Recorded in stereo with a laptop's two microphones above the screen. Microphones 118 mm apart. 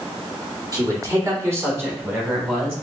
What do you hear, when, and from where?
0.7 s a man speaking: 35° right (ahead or behind), 2 m; by 2.7 s 15° right (ahead or behind), 4 m